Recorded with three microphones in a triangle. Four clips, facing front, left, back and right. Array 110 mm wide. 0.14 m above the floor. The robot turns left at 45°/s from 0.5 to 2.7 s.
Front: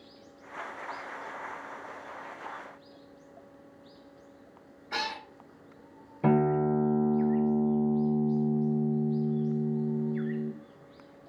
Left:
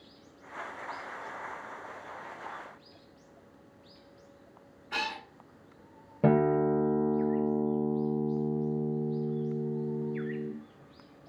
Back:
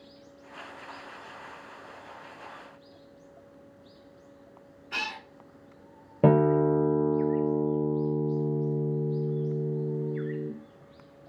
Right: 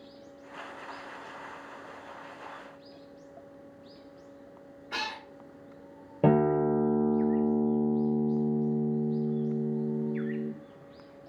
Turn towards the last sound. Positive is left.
turn(degrees=-170)